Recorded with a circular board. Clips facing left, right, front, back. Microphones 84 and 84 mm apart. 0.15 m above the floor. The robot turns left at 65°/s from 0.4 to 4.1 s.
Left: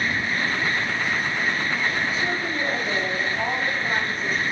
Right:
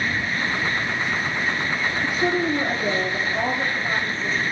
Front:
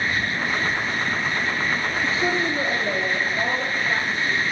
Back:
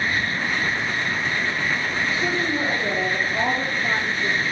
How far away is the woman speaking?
About 6.5 m.